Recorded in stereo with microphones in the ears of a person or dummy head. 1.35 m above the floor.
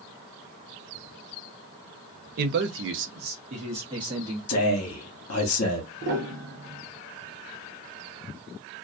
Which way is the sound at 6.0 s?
65° right (ahead or behind).